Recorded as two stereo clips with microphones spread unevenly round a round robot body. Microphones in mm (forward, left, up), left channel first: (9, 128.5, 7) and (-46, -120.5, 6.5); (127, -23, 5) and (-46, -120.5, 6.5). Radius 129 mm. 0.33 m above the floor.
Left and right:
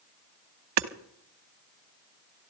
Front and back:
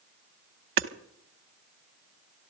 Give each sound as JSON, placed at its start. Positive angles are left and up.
{"t": 0.8, "sound": "hammering", "azimuth_deg": -130, "distance_m": 0.9}